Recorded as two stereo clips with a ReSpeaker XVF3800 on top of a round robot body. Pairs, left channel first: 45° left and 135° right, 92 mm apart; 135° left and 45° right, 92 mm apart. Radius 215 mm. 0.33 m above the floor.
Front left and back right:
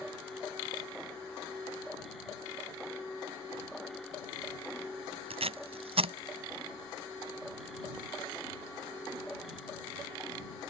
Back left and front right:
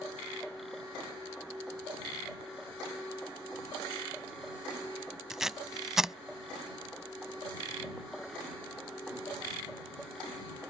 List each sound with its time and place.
5.3 s tape being pulled: 130° right